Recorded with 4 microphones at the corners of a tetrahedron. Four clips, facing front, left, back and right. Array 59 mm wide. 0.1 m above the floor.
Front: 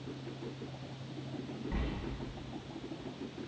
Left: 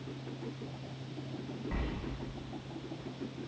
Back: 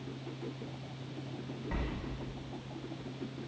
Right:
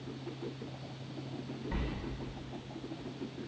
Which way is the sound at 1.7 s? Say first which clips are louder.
Right 1 dB, back 2 dB; 150° left.